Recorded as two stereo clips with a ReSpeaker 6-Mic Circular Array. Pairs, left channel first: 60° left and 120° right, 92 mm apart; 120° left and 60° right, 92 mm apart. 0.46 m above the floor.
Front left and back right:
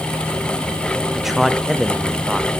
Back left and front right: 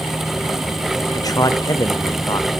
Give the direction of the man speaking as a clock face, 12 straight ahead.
7 o'clock.